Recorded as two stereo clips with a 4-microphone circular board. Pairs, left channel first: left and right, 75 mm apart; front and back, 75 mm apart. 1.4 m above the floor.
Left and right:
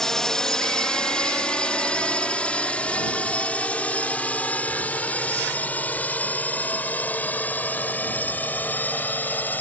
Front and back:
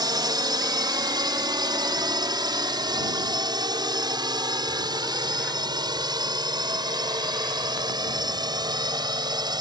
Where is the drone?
170° left; by 9.6 s 155° left.